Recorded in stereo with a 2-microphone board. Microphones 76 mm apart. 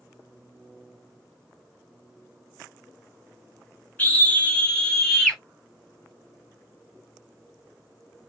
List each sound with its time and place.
4.0 s a scream: 25° left (ahead or behind), 1.9 m; by 5.4 s centre (ahead or behind), 1.8 m